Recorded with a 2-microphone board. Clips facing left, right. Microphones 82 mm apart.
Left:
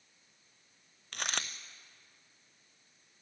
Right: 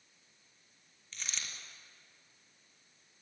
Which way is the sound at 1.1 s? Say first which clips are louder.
Left 8 dB; 60° left (ahead or behind).